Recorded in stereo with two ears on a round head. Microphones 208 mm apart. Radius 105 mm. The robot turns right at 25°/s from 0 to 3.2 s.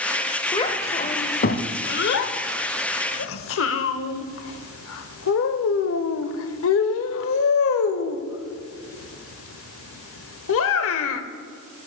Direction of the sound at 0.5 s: 20° left (ahead or behind).